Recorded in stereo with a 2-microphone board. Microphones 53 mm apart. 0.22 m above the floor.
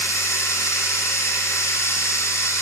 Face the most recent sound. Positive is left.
turn(degrees=70)  # may be behind; listen again after turning